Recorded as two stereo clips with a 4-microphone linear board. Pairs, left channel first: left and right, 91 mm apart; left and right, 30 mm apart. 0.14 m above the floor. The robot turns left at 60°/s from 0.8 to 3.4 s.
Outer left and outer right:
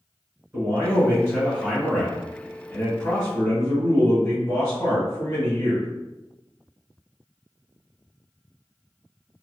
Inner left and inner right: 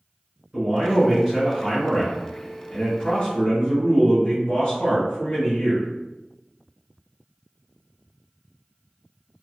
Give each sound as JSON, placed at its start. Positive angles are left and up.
{"t": 0.5, "sound": "a man speaking", "side_deg": -25, "distance_m": 1.6}